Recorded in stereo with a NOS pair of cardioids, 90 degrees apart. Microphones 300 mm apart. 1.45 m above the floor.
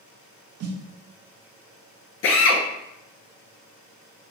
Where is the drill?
45° left, 1.5 m.